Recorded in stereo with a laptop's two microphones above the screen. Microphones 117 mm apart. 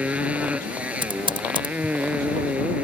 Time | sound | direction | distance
0.0 | a motorcycle | 10° right (ahead or behind) | ?
1.0 | typing on a keyboard | 45° right (ahead or behind) | ?